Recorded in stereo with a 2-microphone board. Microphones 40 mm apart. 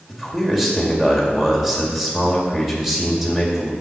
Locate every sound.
0.1 s a man speaking: 5° right (ahead or behind), 1.8 m